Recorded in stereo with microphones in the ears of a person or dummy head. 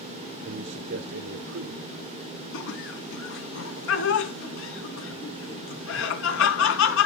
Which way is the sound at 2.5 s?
70° left (ahead or behind).